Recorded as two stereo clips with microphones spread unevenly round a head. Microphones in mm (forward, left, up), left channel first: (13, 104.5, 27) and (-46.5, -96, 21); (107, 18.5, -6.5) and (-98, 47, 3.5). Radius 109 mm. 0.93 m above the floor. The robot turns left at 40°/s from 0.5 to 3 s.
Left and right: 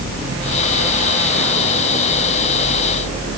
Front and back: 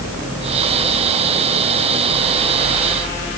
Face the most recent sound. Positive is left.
No sound to turn to.